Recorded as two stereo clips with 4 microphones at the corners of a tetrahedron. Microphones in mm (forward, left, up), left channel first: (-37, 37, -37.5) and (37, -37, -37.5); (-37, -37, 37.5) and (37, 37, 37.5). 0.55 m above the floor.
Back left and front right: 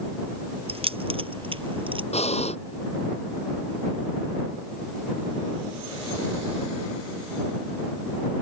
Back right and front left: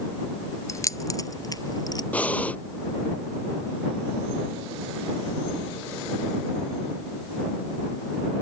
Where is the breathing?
150° left.